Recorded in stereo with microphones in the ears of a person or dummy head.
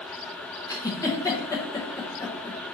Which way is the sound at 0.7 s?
20° left (ahead or behind).